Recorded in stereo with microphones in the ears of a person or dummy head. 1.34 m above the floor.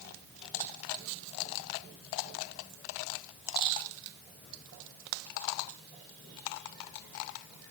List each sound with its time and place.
Only background noise.